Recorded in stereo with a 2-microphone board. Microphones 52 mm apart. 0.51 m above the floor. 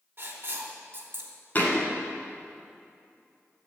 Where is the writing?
45° right (ahead or behind), 1.3 m.